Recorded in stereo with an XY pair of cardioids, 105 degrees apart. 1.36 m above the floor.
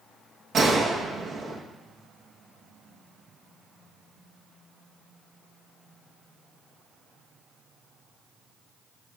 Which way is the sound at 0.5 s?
55° right.